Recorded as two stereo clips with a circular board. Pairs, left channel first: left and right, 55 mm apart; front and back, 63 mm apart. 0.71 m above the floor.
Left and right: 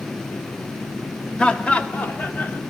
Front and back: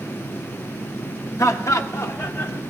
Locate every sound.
1.4 s laughter: 20° left, 1.1 m; by 2.6 s 40° left, 1.5 m